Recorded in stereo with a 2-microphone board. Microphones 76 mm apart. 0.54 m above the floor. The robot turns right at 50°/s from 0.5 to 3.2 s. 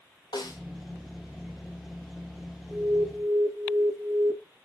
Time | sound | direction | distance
0.3 | a snare drum | 65° left (ahead or behind) | 2.5 m
2.7 | an alarm | 15° right (ahead or behind) | 1.1 m